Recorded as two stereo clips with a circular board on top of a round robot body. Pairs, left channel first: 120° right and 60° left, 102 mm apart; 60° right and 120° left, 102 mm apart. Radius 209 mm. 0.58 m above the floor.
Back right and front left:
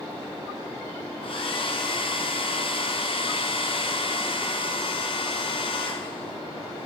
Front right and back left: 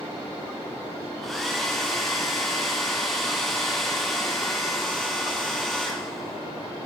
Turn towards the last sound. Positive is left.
turn(degrees=-150)